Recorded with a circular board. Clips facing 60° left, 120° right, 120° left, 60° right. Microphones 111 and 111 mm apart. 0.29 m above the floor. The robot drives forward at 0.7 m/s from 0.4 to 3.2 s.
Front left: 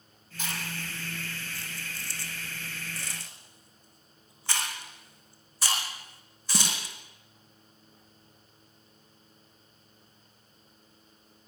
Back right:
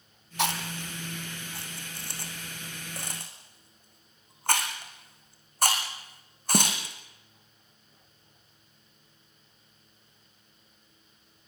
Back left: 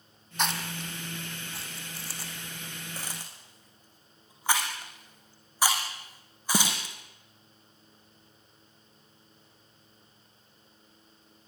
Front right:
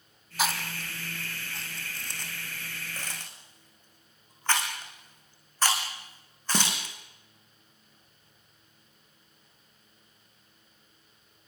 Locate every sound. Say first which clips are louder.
0.4 s chewing: back right 7 dB, front right 1 dB; 145° right, 2.5 m; by 7.0 s 160° right, 4 m